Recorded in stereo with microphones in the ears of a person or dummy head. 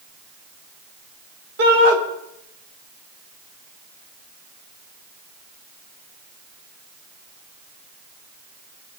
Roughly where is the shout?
Right.